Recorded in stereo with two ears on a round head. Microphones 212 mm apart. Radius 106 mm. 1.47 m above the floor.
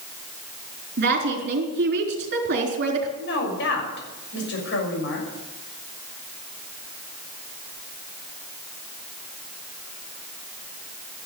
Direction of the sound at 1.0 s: 45° right (ahead or behind).